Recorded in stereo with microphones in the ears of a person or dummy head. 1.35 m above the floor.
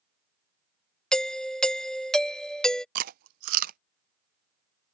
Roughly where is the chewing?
Right.